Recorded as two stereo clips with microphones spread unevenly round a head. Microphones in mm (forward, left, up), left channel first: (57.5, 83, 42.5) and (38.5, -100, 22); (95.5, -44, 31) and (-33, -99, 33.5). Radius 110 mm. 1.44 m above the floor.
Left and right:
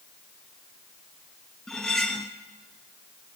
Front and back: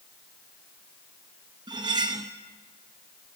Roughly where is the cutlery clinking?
Behind.